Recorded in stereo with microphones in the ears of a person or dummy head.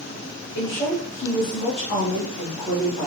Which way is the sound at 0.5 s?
25° left (ahead or behind).